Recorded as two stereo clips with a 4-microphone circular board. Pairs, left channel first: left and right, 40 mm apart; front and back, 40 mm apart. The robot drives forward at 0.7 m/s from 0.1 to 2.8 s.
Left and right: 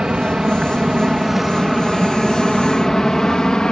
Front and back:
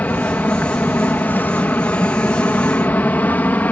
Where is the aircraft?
25° right; by 3.7 s 20° left.